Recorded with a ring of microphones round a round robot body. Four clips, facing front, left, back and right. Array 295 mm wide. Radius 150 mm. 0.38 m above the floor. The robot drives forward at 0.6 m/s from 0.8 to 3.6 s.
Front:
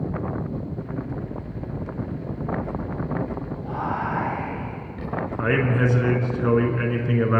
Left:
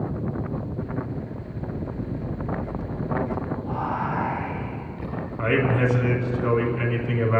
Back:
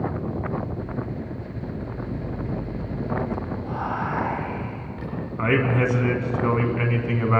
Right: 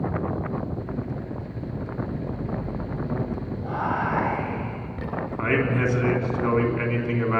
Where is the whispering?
110° right, 6 m.